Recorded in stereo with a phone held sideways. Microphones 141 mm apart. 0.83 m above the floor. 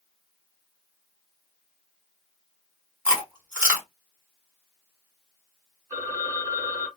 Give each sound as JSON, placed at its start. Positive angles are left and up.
{"t": 3.0, "sound": "chewing", "side_deg": -15, "distance_m": 2.5}
{"t": 5.9, "sound": "a phone ringing", "side_deg": -25, "distance_m": 2.0}